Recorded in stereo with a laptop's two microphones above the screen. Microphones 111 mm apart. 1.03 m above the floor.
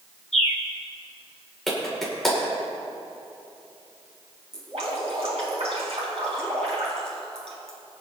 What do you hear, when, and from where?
0.3 s a bird: 80° left, 1.3 m
1.7 s a clap: 5° left (ahead or behind), 2.5 m
4.5 s dripping: 70° right (ahead or behind), 4 m